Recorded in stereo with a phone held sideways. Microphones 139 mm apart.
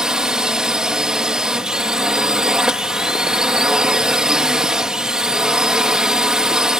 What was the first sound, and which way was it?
A drone, 5° right (ahead or behind).